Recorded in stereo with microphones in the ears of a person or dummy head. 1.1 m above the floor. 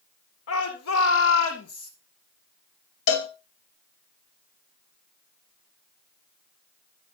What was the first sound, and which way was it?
A shout, 80° left.